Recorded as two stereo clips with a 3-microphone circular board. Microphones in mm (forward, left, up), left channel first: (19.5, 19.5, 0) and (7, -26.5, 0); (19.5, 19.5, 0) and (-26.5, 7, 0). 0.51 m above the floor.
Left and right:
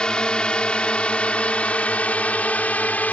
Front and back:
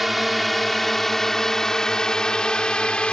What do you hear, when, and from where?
0.0 s a drone: 105° left; by 3.1 s 65° left